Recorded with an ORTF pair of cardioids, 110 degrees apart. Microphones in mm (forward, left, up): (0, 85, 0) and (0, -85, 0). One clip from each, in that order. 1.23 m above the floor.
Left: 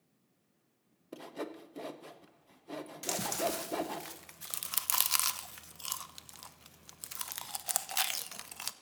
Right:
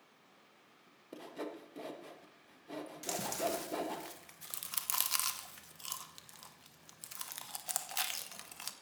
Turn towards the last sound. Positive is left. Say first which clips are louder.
# left 3 dB
turn(degrees=25)